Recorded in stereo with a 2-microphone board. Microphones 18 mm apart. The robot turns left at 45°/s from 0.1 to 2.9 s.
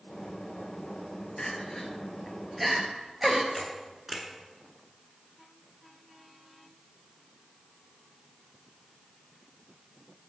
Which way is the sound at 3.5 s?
10° right (ahead or behind).